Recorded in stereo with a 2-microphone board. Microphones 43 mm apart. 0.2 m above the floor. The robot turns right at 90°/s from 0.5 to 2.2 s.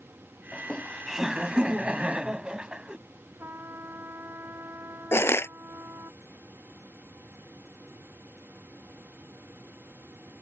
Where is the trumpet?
70° right (ahead or behind).